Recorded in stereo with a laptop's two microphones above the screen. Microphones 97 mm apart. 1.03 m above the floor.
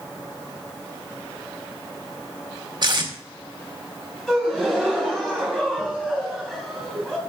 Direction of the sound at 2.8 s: 45° right (ahead or behind).